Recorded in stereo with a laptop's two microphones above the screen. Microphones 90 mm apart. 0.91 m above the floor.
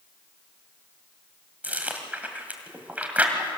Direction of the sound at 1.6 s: 15° right (ahead or behind).